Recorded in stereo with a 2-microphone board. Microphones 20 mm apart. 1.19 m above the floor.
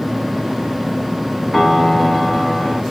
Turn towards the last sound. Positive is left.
turn(degrees=15)  # may be behind; listen again after turning